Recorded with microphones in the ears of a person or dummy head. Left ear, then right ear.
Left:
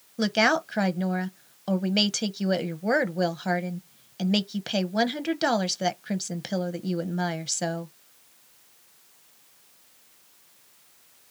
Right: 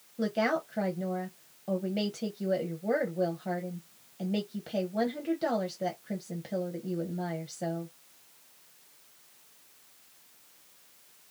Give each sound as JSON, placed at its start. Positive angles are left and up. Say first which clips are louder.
{"t": 0.2, "sound": "a woman speaking", "louder": "left 7 dB", "side_deg": 45, "distance_m": 0.6}